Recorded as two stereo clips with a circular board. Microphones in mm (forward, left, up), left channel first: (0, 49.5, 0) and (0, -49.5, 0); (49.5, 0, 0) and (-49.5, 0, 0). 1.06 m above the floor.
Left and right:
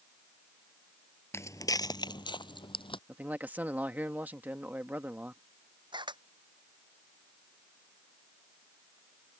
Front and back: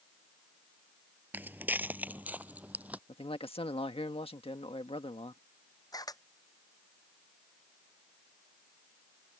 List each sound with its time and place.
1.3 s footsteps: 125° left; by 3.0 s 105° left
3.1 s a man speaking: 20° right
5.9 s a camera shutter: 50° right